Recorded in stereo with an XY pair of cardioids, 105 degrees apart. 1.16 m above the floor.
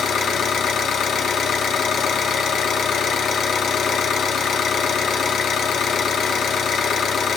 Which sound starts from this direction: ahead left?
An engine running, at 0.0 s.